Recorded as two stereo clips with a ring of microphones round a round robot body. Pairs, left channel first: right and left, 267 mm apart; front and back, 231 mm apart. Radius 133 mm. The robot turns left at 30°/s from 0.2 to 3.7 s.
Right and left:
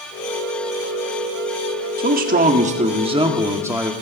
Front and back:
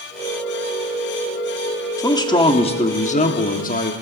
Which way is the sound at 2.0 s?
65° left.